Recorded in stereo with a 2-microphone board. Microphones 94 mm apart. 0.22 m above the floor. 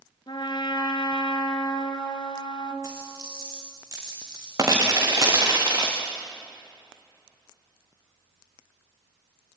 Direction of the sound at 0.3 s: 55° left (ahead or behind).